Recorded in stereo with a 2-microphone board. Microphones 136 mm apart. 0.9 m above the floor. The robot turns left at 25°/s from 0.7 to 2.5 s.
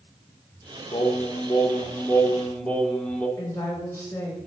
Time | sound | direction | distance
0.9 | singing | 50° left | 0.6 m
3.4 | a woman speaking | 20° left (ahead or behind) | 1.2 m